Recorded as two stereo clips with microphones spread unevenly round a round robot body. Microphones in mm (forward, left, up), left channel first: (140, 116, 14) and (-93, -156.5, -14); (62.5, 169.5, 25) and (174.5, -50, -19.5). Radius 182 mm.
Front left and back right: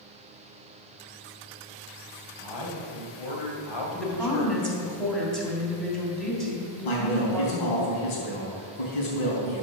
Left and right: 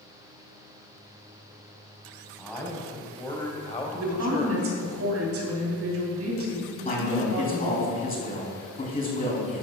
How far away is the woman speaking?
About 3 m.